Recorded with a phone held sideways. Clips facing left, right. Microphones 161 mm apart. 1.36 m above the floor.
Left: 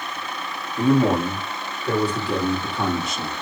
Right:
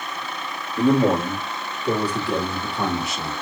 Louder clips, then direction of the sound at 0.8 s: Even; 50° right (ahead or behind).